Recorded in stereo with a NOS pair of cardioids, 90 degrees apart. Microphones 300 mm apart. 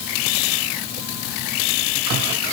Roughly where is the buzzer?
I don't hear a buzzer.